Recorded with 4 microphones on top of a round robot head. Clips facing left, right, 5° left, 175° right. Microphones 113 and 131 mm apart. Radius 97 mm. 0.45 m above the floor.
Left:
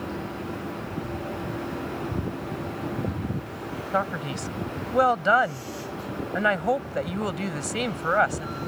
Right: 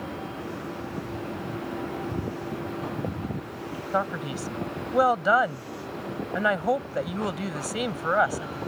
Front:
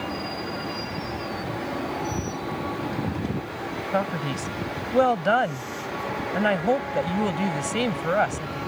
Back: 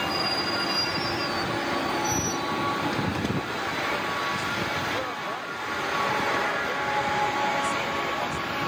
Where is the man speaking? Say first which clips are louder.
Even, front 4 dB; 5° right.